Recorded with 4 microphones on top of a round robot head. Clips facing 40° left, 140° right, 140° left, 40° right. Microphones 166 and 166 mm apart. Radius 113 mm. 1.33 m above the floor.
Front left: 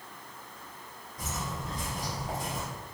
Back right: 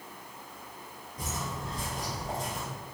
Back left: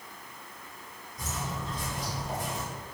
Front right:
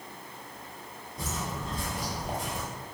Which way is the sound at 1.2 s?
80° right.